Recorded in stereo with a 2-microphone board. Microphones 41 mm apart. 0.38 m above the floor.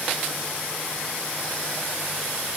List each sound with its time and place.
Only background noise.